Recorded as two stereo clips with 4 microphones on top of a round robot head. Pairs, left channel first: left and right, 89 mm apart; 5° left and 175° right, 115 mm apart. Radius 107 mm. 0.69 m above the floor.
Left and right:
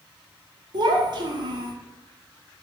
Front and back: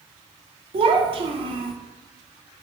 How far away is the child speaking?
About 0.5 m.